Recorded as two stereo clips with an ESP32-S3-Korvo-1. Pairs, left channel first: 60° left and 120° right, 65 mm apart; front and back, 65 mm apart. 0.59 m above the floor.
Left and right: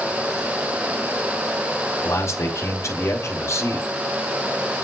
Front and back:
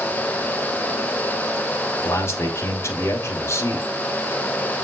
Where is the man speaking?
35° left, 2.5 m.